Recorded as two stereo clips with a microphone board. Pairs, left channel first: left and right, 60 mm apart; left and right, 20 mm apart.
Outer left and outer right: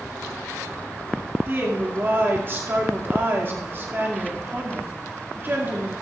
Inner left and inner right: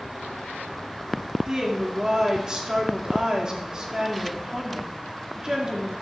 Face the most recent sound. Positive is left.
turn(degrees=-35)  # may be behind; listen again after turning